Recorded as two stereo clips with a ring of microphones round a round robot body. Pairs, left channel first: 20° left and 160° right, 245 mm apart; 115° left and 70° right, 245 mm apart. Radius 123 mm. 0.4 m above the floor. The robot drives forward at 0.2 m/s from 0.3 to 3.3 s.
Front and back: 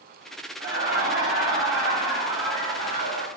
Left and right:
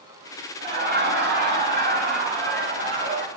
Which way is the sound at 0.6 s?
110° right.